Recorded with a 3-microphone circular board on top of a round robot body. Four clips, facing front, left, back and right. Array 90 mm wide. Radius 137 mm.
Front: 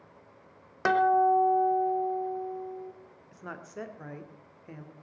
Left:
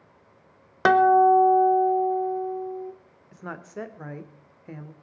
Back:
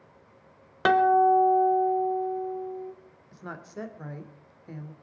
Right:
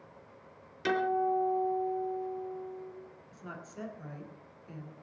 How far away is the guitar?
About 1.1 m.